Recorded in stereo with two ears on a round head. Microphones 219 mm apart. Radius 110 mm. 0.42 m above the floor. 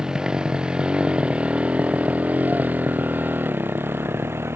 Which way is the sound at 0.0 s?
5° right (ahead or behind).